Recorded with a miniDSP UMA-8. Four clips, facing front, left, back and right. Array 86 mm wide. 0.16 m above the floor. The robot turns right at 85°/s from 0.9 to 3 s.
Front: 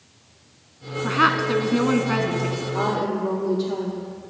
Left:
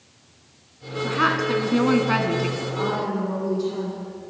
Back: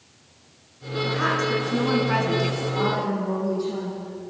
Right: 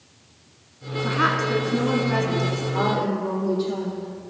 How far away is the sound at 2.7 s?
About 5 m.